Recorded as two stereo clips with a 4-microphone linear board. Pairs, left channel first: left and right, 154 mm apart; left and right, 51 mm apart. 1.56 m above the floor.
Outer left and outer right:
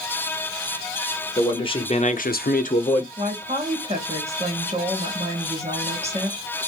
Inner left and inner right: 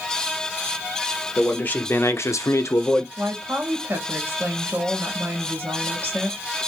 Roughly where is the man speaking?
Left.